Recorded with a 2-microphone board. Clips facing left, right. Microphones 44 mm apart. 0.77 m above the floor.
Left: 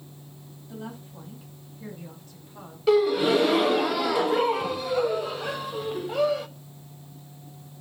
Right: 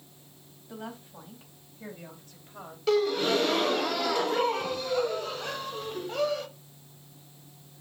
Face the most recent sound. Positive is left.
turn(degrees=10)  # may be behind; listen again after turning